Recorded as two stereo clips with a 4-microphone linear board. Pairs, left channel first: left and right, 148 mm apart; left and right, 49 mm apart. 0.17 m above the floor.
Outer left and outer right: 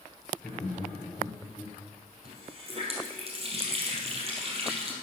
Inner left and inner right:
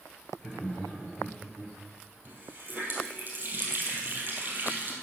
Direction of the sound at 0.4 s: 10° left (ahead or behind).